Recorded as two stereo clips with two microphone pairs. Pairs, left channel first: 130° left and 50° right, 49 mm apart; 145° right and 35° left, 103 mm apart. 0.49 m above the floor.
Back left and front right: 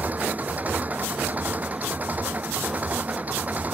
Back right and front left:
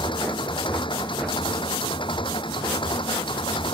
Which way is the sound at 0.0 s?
105° right.